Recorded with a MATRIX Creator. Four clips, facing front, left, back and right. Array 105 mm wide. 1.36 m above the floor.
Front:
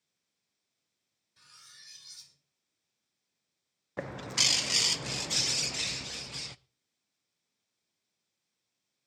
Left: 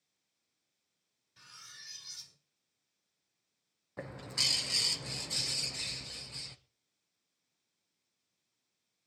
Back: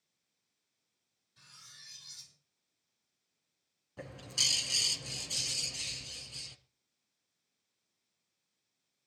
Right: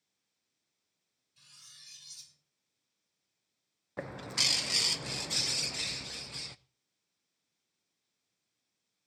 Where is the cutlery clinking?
85° left, 2.5 m.